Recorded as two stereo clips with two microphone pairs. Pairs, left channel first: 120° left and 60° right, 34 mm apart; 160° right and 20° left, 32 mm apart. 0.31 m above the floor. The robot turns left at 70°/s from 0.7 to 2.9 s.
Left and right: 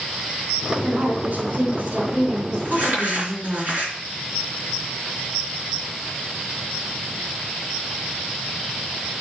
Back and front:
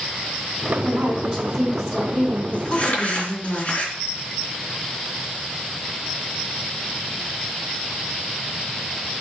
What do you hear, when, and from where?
0.8 s a woman speaking: 10° left, 3.5 m; by 3.6 s 135° right, 3.5 m
2.6 s crumpling: 90° right, 3.5 m; by 3.9 s 110° right, 3.5 m